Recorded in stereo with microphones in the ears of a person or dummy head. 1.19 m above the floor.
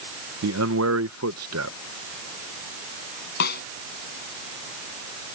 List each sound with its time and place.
0.4 s a man speaking: 65° right (ahead or behind)
3.4 s a snare drum: 60° left (ahead or behind)